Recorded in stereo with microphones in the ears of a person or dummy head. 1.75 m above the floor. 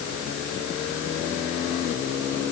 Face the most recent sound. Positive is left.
No sound to turn to.